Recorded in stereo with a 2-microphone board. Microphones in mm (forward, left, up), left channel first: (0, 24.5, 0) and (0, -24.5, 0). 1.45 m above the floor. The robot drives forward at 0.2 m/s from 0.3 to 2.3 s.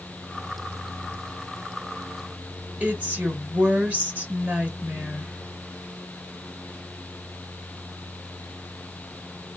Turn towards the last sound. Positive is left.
turn(degrees=-30)  # may be behind; listen again after turning